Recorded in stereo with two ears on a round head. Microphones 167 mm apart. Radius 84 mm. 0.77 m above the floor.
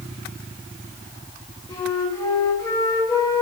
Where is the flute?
20° left (ahead or behind), 1.2 m.